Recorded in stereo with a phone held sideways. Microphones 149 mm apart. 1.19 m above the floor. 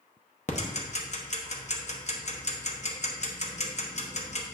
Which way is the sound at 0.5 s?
50° left (ahead or behind).